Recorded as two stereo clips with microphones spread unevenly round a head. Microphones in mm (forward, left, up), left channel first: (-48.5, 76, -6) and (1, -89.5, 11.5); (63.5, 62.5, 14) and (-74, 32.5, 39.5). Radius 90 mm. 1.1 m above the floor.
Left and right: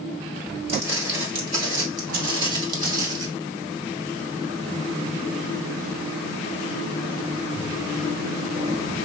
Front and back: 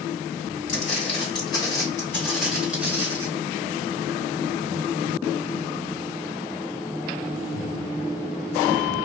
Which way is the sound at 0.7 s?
15° right.